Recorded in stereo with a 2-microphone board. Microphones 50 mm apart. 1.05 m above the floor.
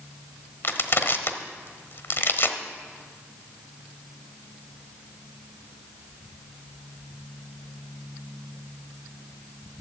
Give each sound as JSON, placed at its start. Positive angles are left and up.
{"t": 0.6, "sound": "crushing", "side_deg": 50, "distance_m": 1.1}